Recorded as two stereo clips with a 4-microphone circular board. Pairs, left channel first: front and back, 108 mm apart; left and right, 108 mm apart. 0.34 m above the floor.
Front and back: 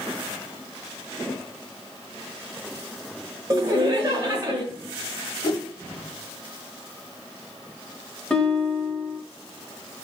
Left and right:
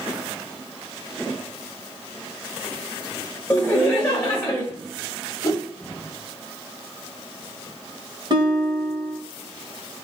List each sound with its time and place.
3.5 s laughter: 160° left, 1.1 m
5.4 s a whoosh: 35° left, 0.5 m
8.3 s a guitar: 75° right, 1.1 m